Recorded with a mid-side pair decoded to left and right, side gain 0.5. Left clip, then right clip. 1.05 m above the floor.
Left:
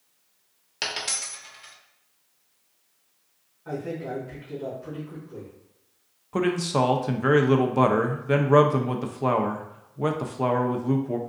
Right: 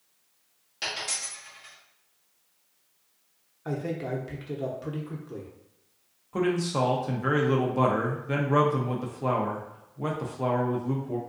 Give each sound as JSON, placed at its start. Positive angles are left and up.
{"t": 0.8, "sound": "a dropped coin", "azimuth_deg": 60, "distance_m": 1.0}
{"t": 3.6, "sound": "a man speaking", "azimuth_deg": -65, "distance_m": 0.8}
{"t": 6.3, "sound": "a man speaking", "azimuth_deg": 30, "distance_m": 0.5}